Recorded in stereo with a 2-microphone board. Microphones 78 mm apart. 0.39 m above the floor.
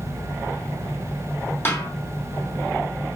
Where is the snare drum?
30° left (ahead or behind), 3 m.